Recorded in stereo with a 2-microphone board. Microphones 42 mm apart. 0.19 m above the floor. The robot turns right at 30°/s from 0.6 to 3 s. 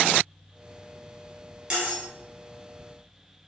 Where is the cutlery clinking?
25° right (ahead or behind), 1.6 m; by 2.0 s 35° right (ahead or behind), 1.6 m.